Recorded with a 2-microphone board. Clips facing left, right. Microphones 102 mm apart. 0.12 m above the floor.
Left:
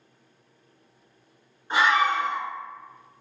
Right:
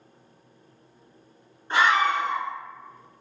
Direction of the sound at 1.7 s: 10° left (ahead or behind).